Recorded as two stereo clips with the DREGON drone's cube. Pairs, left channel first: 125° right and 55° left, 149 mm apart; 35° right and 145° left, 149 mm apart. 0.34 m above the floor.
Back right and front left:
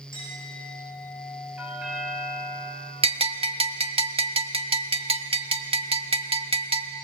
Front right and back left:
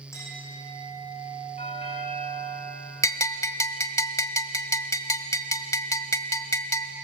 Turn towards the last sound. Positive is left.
turn(degrees=25)